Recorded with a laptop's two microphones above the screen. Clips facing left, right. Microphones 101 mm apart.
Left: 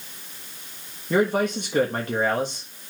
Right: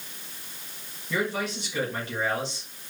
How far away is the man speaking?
About 1.3 m.